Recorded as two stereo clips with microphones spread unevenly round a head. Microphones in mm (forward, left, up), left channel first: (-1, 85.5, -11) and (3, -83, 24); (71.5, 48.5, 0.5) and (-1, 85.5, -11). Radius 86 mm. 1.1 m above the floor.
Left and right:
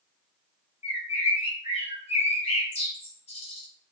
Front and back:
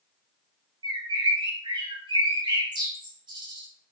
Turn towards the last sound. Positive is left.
turn(degrees=145)